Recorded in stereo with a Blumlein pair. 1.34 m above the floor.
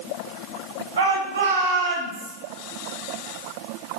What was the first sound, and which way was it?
A shout, 65° right.